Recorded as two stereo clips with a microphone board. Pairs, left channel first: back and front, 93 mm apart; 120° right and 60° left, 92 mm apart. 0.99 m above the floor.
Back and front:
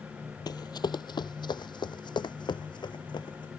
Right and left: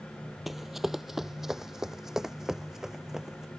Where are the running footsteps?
150° left; by 3.5 s 145° left.